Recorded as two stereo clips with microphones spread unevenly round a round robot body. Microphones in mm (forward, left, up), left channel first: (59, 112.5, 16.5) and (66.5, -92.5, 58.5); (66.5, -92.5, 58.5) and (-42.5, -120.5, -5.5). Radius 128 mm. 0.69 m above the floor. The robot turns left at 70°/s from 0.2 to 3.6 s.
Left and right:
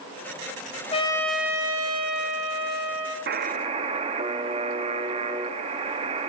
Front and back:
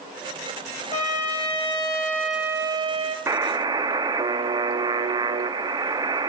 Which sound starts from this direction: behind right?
A buzzer, at 3.3 s.